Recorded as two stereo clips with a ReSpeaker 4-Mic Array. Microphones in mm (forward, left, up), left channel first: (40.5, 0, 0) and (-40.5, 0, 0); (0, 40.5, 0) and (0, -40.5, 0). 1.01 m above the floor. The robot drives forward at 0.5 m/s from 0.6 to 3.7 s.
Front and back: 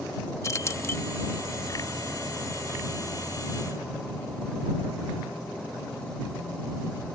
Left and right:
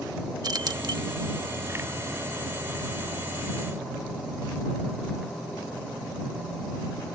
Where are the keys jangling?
55° right; by 1.0 s 65° right.